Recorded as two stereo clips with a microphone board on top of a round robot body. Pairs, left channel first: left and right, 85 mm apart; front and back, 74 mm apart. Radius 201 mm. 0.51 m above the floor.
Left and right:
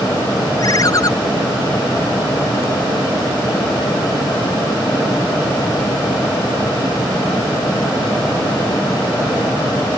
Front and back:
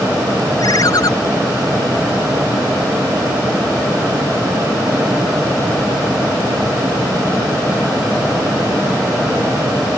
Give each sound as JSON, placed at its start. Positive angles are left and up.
{"t": 0.6, "sound": "a ringtone", "azimuth_deg": 40}